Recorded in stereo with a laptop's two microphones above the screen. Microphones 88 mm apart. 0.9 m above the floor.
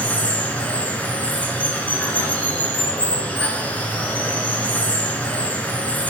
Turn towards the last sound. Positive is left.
turn(degrees=20)  # may be behind; listen again after turning